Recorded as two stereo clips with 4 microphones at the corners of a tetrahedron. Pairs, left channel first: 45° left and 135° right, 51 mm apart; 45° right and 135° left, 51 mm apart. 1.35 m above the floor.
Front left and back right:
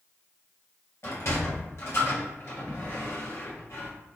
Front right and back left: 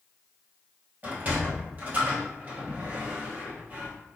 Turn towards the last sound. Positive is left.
turn(degrees=80)